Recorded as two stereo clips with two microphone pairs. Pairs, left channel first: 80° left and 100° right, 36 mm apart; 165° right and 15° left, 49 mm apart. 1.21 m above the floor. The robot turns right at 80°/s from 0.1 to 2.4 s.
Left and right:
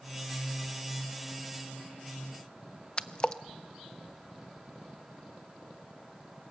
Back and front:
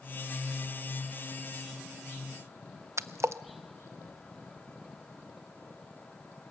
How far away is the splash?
About 0.6 m.